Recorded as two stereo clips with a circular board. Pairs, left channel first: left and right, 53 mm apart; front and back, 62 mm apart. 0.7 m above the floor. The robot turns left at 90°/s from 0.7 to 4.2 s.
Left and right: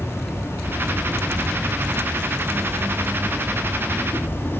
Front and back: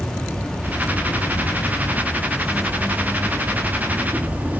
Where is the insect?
80° left, 2.5 m; by 4.6 s 125° left, 2.5 m.